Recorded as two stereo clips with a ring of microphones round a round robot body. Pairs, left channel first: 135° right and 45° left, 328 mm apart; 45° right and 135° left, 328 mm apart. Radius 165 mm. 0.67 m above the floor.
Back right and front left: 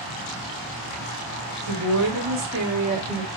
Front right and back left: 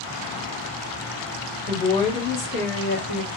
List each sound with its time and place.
1.7 s a woman speaking: 40° left, 1.6 m; by 3.3 s 30° right, 1.7 m